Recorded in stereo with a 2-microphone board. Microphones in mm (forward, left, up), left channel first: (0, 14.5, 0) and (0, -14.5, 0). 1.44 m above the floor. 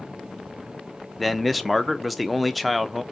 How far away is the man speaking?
About 0.5 m.